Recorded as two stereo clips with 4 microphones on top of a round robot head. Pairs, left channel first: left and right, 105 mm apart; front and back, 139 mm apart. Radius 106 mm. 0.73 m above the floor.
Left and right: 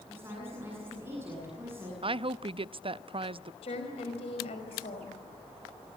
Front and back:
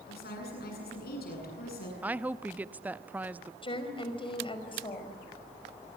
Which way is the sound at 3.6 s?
50° left.